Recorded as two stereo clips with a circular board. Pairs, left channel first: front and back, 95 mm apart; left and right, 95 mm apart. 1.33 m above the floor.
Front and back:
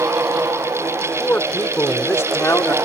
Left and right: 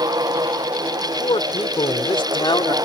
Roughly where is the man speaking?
Left.